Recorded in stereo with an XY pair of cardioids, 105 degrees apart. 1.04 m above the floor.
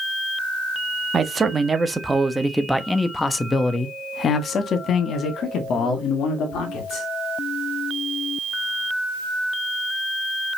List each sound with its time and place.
1.1 s a man speaking: 30° right, 1.6 m; by 7.1 s 80° left, 2.5 m